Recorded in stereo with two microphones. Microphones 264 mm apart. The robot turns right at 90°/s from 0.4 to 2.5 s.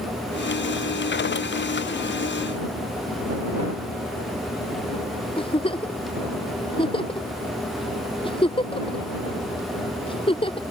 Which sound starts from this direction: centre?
A giggle, at 5.4 s.